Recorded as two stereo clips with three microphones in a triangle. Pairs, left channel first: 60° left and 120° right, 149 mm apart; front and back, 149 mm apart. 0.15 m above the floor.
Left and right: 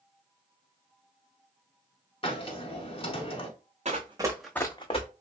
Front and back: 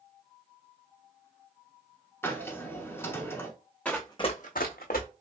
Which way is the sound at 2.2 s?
65° left.